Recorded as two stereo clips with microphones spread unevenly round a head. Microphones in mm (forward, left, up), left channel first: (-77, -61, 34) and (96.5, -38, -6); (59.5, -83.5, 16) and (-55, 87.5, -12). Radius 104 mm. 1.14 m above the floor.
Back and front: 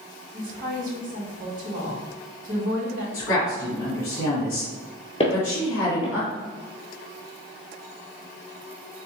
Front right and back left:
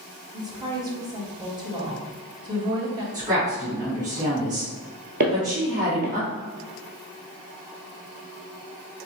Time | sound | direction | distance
0.3 | a woman speaking | 55° left | 1.8 m
3.1 | a woman speaking | 175° left | 2 m
5.2 | footsteps | 155° left | 1.5 m